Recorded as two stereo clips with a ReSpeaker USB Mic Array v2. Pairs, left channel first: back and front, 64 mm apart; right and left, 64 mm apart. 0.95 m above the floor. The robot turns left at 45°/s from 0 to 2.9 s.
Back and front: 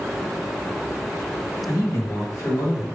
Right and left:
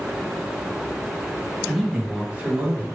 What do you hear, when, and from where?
1.7 s a man speaking: 175° right, 1.6 m; by 2.9 s 135° left, 1.6 m